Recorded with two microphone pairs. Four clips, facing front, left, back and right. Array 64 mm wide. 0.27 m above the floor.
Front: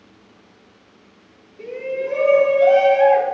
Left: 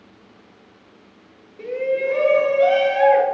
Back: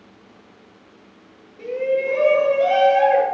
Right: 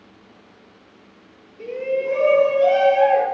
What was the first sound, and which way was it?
A shout, 85° left.